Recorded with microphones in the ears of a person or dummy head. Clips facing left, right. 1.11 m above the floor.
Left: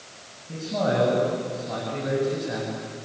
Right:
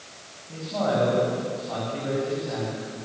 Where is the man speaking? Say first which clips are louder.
Left 1 dB; 30° left (ahead or behind), 8.5 m.